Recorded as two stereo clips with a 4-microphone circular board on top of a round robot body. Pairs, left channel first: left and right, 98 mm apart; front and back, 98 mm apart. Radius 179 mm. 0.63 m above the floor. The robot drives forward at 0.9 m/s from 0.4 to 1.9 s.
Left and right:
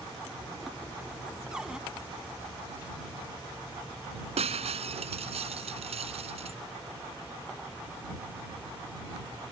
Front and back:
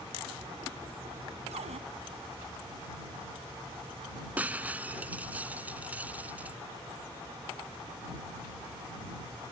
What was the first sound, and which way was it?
A cupboard door, 170° right.